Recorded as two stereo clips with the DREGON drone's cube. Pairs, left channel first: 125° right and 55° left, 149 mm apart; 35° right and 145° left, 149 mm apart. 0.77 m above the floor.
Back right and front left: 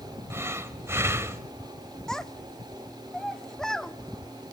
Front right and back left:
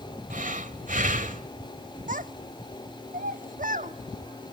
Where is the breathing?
125° left, 1.3 m.